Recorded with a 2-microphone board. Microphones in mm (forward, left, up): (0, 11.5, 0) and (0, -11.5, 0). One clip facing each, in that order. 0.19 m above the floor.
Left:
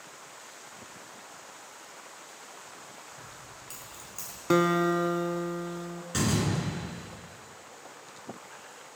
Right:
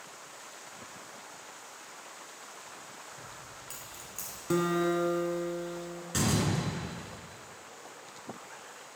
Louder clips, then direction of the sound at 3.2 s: Even; 10° right (ahead or behind).